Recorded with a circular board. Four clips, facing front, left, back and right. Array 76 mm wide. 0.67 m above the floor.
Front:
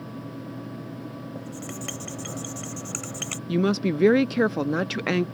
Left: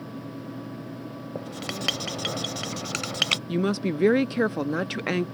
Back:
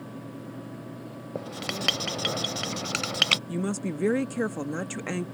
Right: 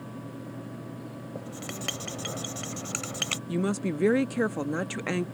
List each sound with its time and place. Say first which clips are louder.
1.4 s writing: left 5 dB, back 2 dB; 145° left
3.5 s a woman speaking: left 2 dB, front 7 dB; 30° left